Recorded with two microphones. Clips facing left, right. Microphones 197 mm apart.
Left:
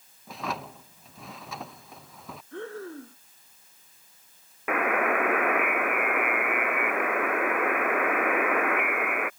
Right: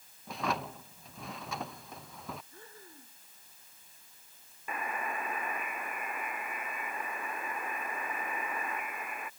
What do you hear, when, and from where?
0.3 s a drawer: centre (ahead or behind)
2.5 s breathing: 80° left
4.7 s a buzzer: 85° left